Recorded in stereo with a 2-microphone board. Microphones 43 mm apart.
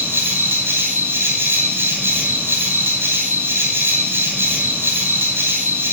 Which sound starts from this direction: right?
An insect, at 0.0 s.